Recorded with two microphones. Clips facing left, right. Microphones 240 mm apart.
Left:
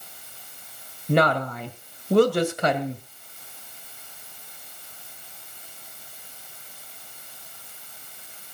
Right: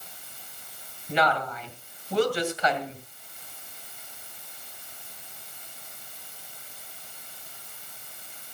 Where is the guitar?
I don't hear a guitar.